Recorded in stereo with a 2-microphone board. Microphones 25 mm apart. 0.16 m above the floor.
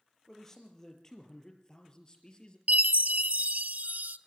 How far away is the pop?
I don't hear a pop.